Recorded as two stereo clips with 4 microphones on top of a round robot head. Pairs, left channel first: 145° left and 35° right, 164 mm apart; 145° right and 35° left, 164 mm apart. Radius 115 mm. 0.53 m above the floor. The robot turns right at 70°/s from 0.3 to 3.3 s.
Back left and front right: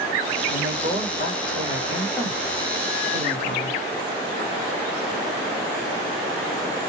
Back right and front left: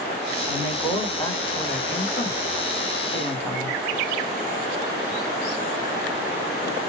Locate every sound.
0.5 s a woman speaking: 95° left, 1.7 m; by 3.8 s 70° right, 1.7 m